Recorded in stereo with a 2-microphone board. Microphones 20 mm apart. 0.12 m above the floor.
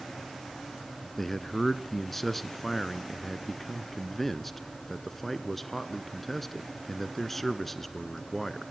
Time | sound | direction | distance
1.2 | a man speaking | 10° left (ahead or behind) | 1.3 m